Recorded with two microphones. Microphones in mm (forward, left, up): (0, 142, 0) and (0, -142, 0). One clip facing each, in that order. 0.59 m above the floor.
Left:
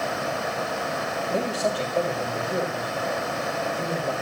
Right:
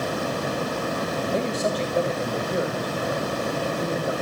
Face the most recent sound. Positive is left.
turn(degrees=-20)  # may be behind; listen again after turning